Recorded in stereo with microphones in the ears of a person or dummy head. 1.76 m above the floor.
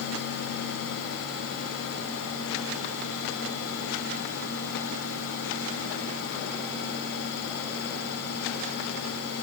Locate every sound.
Only background noise.